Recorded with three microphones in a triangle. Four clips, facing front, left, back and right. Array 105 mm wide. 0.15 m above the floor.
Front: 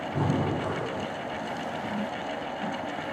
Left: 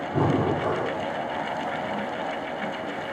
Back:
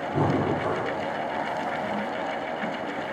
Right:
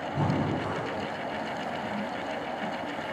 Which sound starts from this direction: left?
Breathing, at 0.1 s.